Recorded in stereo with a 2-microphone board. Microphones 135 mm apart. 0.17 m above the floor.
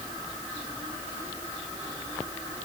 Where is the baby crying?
No baby crying in this recording.